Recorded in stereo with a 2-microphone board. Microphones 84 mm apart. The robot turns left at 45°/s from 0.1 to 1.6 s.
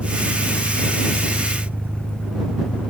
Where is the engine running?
90° right; by 2.9 s 160° right.